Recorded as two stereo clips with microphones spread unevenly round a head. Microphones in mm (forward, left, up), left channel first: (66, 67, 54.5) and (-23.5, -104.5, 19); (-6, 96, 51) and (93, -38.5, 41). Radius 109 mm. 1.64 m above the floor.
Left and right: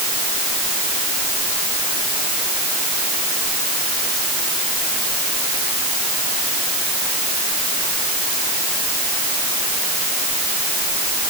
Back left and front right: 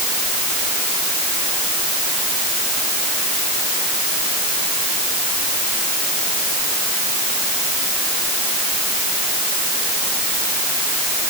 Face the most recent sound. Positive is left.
No sound to turn to.